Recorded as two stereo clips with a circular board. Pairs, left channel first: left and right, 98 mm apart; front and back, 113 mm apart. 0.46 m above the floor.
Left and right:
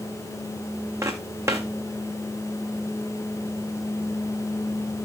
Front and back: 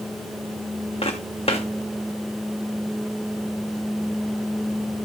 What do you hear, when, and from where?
1.0 s footsteps: 30° right, 2 m